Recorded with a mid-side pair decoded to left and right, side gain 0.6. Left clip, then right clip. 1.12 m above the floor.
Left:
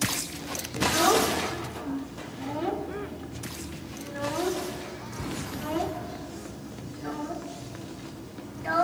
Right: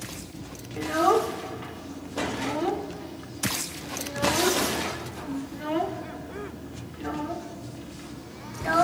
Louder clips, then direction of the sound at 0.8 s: Even; 15° right.